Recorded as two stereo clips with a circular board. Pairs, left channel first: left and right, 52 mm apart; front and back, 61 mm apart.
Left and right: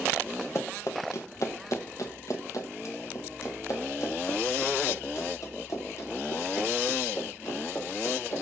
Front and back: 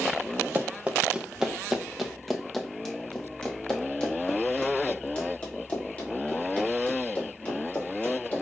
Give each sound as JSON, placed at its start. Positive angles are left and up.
{"t": 0.6, "sound": "running footsteps", "azimuth_deg": 115, "distance_m": 1.4}